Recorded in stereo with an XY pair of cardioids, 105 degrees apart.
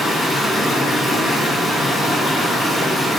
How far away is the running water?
About 1.9 m.